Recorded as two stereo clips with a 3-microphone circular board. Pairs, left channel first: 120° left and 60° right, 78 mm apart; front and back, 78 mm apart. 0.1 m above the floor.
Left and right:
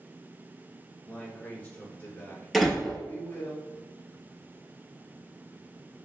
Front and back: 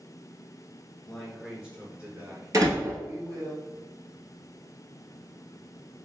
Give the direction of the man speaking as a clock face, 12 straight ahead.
9 o'clock.